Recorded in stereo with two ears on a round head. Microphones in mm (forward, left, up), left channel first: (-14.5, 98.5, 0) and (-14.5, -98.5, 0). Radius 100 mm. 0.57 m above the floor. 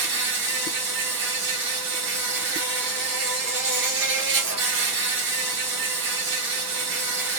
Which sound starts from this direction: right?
An insect, at 0.0 s.